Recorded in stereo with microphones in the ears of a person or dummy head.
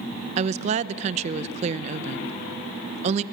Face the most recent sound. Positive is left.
turn(degrees=-35)  # may be behind; listen again after turning